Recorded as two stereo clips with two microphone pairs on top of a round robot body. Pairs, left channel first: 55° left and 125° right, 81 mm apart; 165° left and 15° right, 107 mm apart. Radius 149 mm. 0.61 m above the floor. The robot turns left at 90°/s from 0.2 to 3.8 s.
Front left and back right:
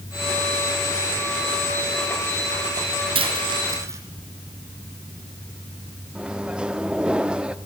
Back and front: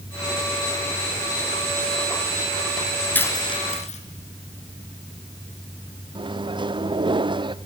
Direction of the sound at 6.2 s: 45° right.